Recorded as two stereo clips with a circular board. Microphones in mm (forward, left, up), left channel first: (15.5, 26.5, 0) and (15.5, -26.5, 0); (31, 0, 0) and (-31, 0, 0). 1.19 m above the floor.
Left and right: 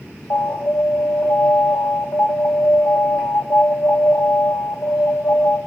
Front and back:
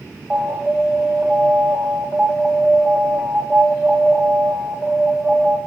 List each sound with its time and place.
0.3 s an alarm: 105° left, 3 m